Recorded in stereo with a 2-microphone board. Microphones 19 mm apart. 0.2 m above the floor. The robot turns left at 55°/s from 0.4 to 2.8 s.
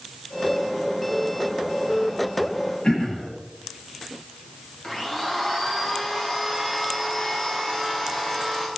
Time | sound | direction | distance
2.8 | throat clearing | 45° left (ahead or behind) | 10 m
4.8 | a blender | 15° left (ahead or behind) | 4 m